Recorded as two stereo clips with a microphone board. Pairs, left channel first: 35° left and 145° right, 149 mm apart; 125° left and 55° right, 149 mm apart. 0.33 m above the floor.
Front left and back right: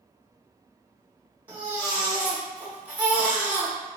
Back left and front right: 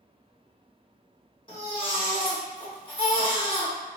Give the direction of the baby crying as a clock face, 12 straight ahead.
7 o'clock.